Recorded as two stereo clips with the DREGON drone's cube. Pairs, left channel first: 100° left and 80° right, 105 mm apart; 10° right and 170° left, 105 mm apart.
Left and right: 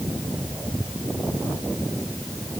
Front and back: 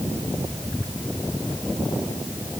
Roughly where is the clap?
I don't hear a clap.